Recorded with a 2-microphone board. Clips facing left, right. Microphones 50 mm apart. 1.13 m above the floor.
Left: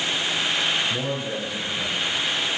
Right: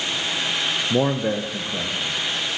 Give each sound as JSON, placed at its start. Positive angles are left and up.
{"t": 0.9, "sound": "a man speaking", "side_deg": -40, "distance_m": 0.6}